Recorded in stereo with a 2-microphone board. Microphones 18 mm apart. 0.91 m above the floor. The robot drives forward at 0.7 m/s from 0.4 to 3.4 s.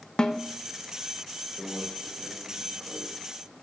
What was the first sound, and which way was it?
A snare drum, 45° left (ahead or behind).